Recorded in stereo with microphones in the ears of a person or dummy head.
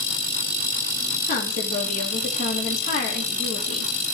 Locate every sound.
1.3 s a woman speaking: 50° left (ahead or behind), 2.5 m